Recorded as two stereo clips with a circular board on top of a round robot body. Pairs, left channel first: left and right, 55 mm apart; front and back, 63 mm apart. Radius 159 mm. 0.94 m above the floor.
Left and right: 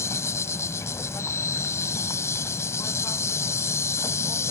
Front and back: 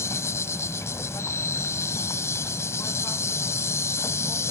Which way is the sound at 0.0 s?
50° left.